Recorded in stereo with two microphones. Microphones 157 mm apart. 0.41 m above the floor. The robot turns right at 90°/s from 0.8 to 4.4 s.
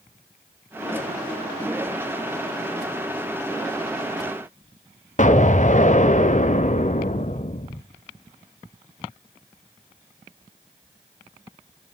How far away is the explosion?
About 1.2 m.